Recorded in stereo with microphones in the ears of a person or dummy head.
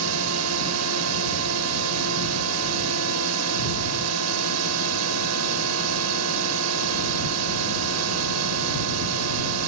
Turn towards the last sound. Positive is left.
turn(degrees=-80)